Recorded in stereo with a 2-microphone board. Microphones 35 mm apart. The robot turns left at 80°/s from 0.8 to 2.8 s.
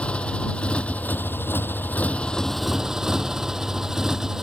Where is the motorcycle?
145° left; by 4.4 s 15° right.